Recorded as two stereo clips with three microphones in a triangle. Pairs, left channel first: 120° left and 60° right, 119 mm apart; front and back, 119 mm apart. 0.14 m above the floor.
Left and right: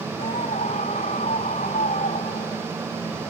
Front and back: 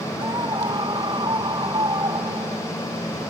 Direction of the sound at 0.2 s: 130° left.